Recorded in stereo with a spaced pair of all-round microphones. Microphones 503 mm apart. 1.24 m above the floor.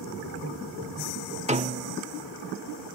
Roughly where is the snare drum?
Centre.